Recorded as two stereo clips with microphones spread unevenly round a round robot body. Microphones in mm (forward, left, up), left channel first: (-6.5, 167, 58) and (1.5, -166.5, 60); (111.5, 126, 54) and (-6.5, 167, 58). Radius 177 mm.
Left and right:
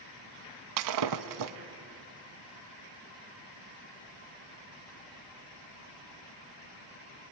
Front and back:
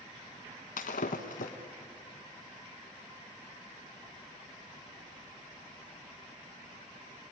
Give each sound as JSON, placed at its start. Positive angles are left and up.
{"t": 0.8, "sound": "breaking glass", "azimuth_deg": -55, "distance_m": 1.0}